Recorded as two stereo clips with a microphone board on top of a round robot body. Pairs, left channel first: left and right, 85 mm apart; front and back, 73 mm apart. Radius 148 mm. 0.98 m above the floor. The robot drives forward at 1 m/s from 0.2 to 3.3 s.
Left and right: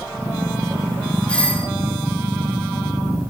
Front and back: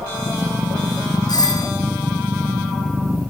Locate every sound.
1.3 s a doorbell: 15° left, 2 m